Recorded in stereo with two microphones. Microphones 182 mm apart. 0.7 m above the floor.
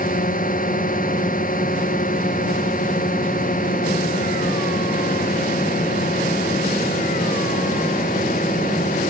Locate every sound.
0.0 s a drone: 55° left (ahead or behind)